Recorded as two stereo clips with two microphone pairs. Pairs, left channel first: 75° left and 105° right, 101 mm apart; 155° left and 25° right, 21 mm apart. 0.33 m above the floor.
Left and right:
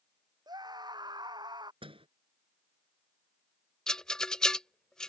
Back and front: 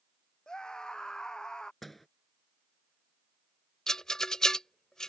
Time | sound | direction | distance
0.5 | a scream | 150° right | ?
1.8 | a door slam | 125° right | ?
3.9 | a rattle | 150° left | ?